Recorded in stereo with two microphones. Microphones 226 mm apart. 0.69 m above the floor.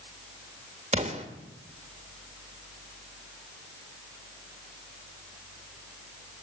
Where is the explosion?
30° right (ahead or behind), 1.2 m.